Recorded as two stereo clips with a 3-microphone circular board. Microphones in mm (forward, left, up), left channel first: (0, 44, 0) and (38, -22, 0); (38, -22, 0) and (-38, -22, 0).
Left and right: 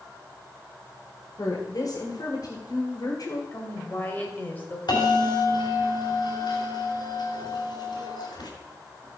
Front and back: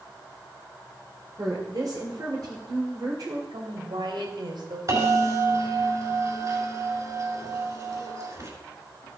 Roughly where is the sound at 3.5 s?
Behind.